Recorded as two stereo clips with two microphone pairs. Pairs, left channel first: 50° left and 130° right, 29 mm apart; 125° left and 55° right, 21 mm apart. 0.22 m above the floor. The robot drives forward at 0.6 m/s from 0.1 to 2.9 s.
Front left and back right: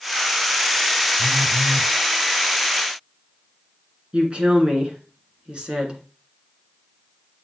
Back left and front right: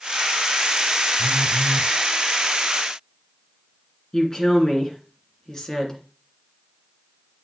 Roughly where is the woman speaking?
Behind.